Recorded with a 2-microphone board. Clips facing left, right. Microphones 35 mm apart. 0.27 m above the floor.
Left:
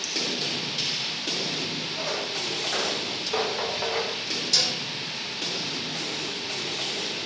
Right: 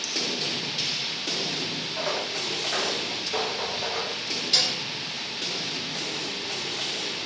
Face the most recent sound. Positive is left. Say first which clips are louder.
# right 1 dB
turn(degrees=-25)  # may be behind; listen again after turning